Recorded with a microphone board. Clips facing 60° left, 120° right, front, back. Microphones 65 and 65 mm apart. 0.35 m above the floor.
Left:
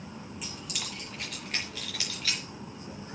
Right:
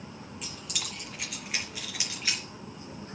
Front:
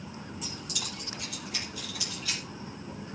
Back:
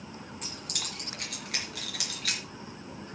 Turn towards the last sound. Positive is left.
turn(degrees=170)